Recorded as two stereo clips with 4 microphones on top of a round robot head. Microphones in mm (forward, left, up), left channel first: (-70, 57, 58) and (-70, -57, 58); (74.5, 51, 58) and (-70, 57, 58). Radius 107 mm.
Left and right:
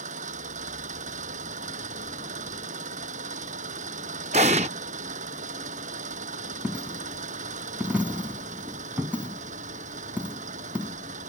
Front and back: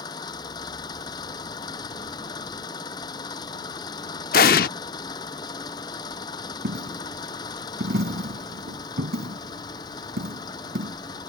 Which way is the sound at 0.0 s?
70° right.